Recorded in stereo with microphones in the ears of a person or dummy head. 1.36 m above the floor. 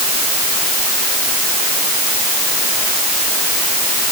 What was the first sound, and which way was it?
Only background noise.